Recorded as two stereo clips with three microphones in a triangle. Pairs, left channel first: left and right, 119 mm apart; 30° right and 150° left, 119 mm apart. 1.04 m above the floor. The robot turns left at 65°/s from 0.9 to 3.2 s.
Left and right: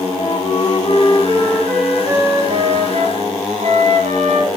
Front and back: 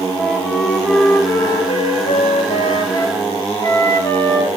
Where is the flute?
60° left, 2.5 m; by 4.5 s 90° right, 2.5 m.